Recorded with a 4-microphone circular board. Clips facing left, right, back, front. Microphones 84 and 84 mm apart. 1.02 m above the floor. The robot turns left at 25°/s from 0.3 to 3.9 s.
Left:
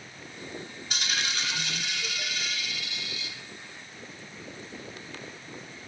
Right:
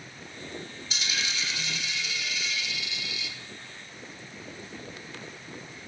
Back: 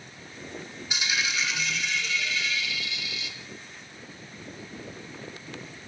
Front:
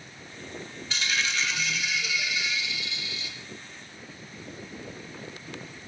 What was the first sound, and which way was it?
A dropped coin, 110° left.